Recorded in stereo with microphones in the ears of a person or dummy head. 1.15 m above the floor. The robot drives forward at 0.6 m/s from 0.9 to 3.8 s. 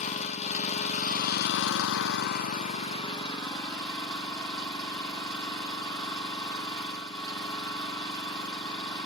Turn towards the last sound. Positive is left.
turn(degrees=20)  # may be behind; listen again after turning